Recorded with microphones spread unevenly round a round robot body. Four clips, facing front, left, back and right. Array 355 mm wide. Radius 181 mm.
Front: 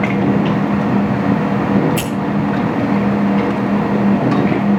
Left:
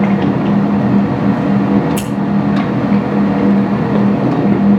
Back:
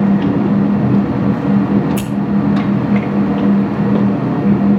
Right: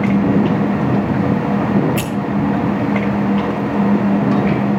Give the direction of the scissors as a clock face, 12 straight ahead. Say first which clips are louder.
Left 1 dB, even; 8 o'clock.